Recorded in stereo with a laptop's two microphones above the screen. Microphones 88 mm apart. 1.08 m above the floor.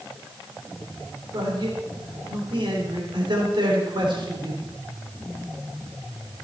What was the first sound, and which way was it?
A man speaking, 60° right (ahead or behind).